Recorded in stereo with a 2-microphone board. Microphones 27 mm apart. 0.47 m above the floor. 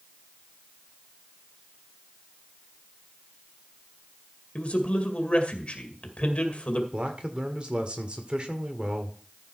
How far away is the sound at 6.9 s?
About 1.6 m.